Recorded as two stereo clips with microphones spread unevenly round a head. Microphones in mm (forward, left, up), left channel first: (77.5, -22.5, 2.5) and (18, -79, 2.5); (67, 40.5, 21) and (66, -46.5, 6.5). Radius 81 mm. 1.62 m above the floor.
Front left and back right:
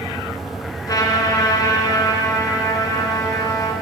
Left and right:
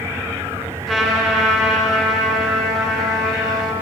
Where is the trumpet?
Straight ahead, 3 m.